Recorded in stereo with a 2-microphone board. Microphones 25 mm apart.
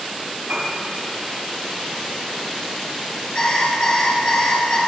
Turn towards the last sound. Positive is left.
turn(degrees=40)  # may be behind; listen again after turning